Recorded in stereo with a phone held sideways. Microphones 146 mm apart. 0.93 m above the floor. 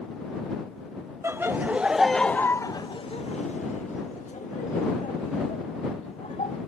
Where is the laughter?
20° right (ahead or behind); by 6.6 s 50° left (ahead or behind).